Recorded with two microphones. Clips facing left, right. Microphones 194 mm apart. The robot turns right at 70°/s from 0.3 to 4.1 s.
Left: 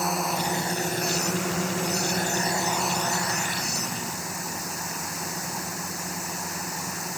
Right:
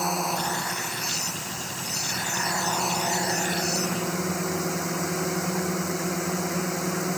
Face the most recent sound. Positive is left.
turn(degrees=-95)